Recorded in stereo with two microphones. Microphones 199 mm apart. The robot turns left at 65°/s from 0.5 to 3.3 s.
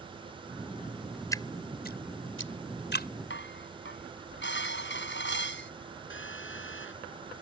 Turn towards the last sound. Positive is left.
turn(degrees=80)